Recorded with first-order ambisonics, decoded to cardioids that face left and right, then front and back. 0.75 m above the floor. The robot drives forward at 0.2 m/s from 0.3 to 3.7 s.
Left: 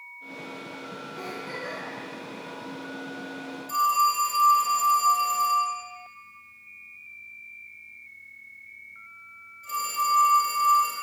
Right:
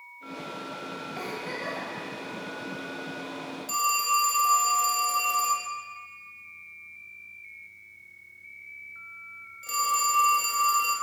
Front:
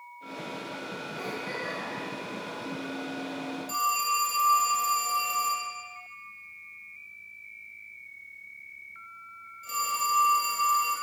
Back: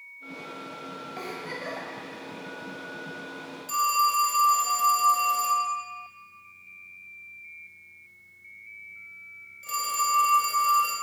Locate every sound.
1.2 s a giggle: 130° right, 1.3 m
3.7 s a phone ringing: 130° right, 1.2 m